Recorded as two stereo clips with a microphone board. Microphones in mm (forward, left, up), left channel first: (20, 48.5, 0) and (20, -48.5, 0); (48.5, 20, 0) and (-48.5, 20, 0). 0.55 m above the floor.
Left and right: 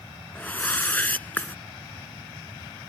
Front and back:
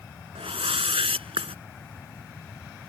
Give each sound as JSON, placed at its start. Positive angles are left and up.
{"t": 0.3, "sound": "a whoosh", "azimuth_deg": 165}